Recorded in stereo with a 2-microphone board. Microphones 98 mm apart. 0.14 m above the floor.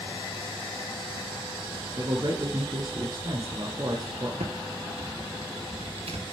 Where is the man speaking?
45° right (ahead or behind), 1.7 m.